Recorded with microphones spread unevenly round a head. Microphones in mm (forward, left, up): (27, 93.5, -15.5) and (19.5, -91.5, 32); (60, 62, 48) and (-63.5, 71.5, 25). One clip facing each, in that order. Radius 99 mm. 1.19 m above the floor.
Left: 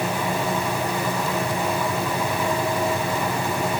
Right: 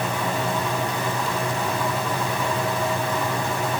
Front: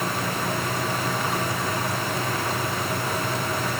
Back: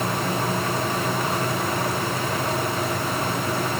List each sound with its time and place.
Only background noise.